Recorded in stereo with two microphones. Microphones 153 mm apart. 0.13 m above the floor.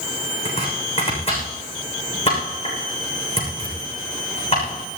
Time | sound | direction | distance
0.5 | chopping | 40° left (ahead or behind) | 7 m